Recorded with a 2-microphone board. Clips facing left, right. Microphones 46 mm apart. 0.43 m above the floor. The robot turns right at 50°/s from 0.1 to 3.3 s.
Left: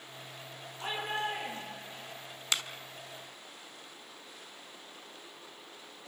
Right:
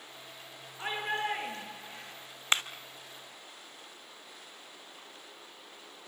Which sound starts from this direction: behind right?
A shout, at 0.8 s.